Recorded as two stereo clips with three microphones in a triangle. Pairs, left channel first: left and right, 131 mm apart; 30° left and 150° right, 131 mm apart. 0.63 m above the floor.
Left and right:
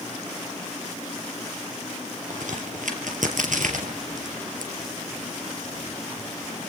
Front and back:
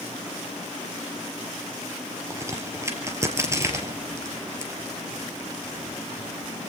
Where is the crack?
80° right, 3.5 m.